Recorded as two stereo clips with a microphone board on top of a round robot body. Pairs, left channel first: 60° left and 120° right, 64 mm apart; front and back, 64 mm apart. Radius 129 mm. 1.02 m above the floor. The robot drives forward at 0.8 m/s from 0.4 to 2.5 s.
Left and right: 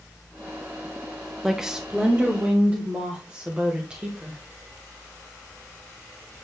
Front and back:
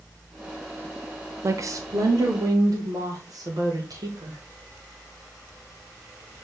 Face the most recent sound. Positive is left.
turn(degrees=170)